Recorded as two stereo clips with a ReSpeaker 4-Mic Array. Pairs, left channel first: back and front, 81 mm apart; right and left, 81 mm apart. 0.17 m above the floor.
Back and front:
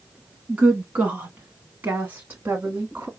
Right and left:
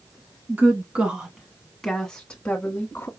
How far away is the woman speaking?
About 1.3 m.